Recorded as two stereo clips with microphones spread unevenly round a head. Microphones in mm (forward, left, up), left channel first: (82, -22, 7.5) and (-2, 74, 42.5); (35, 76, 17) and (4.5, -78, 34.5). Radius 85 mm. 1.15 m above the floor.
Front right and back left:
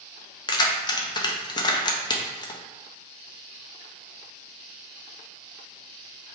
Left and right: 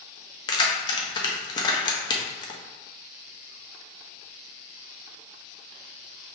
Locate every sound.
0.5 s keys jangling: 15° left, 0.7 m